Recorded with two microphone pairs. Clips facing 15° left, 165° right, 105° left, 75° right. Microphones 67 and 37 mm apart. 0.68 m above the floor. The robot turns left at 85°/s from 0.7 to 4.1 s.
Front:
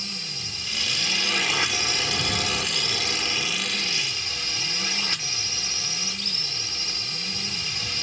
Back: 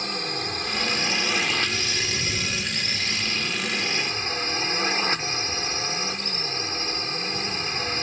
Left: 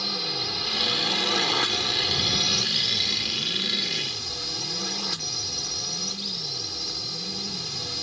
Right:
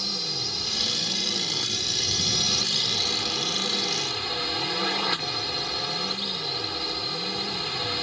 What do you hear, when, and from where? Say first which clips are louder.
0.0 s a drone: back 9 dB, left 2 dB; 170° left; by 8.0 s 120° right